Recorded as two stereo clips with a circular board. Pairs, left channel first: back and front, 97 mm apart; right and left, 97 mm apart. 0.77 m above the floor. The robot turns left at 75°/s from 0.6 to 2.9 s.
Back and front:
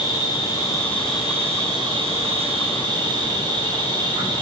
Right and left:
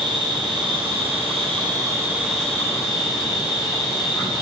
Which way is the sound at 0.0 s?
135° left.